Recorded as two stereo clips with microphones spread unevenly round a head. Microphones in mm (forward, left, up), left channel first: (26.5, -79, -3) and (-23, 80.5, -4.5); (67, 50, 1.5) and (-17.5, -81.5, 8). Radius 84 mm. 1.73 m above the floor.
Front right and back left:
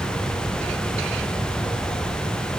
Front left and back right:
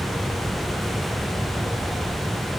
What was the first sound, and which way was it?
Only background noise.